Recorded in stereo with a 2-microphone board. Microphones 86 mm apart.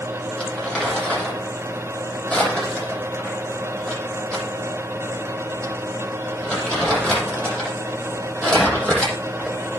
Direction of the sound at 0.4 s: 10° left (ahead or behind).